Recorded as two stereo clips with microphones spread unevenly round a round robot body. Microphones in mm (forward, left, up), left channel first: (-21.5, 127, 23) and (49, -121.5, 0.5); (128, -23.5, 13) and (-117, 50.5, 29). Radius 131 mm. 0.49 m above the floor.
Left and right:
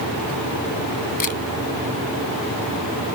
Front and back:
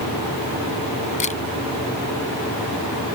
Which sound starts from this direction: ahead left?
A camera shutter, at 1.2 s.